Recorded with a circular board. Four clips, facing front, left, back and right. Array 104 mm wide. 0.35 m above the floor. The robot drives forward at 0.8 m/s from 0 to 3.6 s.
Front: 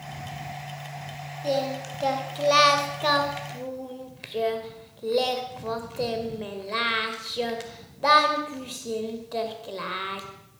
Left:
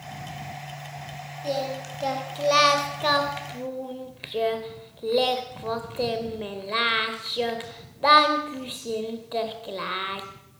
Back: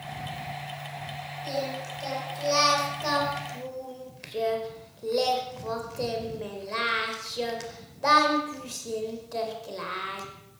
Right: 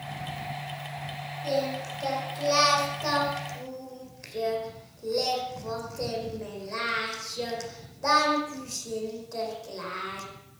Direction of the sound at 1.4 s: 20° left.